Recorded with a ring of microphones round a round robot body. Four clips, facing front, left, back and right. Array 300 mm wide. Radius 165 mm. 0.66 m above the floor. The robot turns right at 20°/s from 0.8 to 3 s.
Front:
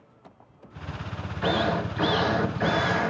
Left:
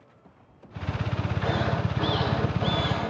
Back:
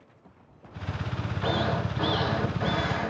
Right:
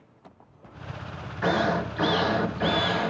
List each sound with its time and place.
1.4 s a drill: 60° right, 1.3 m; by 3.1 s 25° right, 1.3 m